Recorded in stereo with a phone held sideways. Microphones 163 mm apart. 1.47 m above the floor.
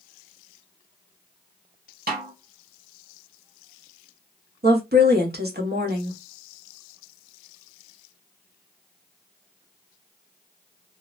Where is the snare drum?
70° right (ahead or behind), 0.8 m.